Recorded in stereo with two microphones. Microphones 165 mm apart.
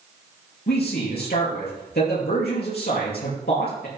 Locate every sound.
0.7 s a man speaking: 75° left (ahead or behind), 4.5 m